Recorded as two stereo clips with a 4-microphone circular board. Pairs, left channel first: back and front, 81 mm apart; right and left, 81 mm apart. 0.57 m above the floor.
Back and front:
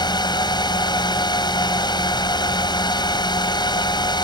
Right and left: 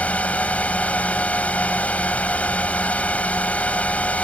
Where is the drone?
160° right.